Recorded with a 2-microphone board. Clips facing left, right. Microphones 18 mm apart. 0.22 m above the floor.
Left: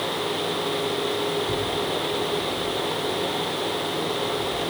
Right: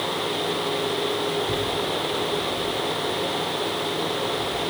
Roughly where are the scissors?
I don't hear scissors.